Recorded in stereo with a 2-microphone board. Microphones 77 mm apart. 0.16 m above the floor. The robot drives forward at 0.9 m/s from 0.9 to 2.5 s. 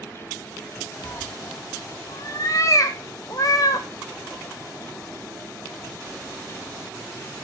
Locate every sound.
1.0 s a cat meowing: 70° left (ahead or behind), 1.1 m; by 3.9 s 50° left (ahead or behind), 1.4 m